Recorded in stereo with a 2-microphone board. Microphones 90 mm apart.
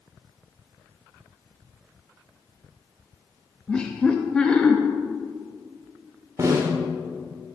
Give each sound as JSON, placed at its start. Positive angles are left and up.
{"t": 3.7, "sound": "laughter", "side_deg": 10, "distance_m": 0.7}
{"t": 6.4, "sound": "a snare drum", "side_deg": -35, "distance_m": 1.4}